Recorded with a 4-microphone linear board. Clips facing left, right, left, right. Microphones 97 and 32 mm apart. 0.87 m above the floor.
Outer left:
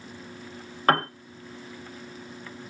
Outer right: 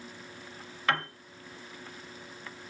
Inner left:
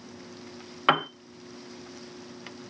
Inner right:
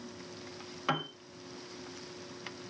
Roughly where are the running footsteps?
I don't hear running footsteps.